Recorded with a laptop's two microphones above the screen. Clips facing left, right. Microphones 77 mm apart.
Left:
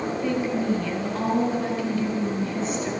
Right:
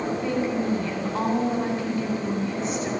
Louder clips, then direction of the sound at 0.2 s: Left 2 dB; 40° right (ahead or behind).